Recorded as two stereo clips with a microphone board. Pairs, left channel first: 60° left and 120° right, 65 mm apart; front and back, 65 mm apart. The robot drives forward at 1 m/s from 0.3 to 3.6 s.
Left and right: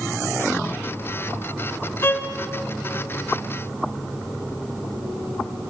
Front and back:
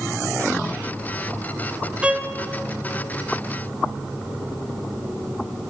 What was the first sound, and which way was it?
A violin, 110° left.